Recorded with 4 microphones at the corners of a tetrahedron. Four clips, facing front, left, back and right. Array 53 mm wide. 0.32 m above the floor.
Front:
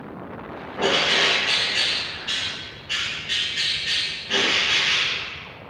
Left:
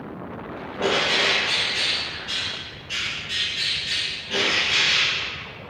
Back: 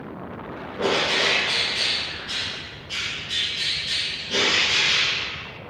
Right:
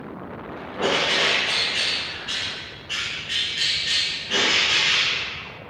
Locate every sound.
0.8 s a bird: 10° right, 0.6 m